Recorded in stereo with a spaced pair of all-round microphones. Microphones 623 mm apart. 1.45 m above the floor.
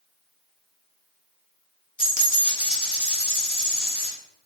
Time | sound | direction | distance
2.0 | a dropped coin | 30° left (ahead or behind) | 1.0 m